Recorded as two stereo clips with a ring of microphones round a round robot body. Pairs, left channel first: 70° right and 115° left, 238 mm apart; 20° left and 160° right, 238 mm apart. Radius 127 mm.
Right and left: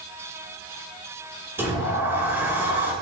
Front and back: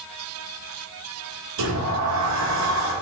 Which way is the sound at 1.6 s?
165° right.